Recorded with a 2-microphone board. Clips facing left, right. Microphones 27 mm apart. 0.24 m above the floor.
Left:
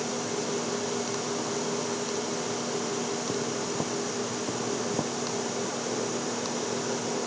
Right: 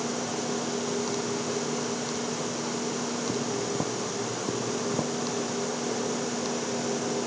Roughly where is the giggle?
No giggle in this recording.